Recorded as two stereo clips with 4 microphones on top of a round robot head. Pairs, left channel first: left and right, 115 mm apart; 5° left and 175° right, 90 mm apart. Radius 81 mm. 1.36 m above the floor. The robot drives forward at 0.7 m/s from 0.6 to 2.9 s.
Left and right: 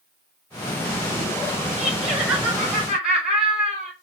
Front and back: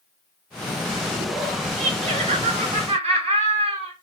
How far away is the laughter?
About 1.9 m.